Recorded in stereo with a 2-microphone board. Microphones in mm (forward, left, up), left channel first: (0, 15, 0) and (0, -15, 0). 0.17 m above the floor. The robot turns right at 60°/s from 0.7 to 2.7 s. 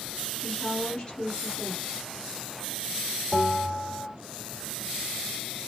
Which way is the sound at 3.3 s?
Centre (ahead or behind).